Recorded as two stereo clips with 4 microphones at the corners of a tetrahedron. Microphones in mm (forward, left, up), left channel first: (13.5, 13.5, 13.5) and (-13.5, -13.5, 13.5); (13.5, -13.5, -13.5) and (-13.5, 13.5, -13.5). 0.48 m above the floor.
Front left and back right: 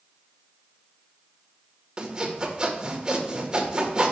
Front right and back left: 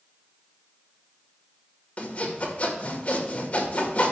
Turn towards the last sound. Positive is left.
turn(degrees=-75)